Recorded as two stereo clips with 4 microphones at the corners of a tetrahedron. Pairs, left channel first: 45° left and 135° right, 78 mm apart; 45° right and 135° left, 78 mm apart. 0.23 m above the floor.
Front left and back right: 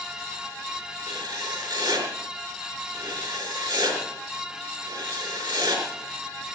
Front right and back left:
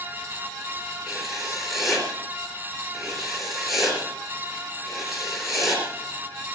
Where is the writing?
135° right, 4.5 m.